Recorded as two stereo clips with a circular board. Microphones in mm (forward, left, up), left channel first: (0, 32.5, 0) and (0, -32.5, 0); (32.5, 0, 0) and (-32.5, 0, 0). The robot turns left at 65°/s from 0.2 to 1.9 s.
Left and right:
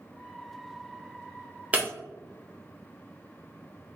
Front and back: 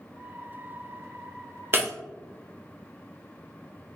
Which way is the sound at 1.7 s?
145° right.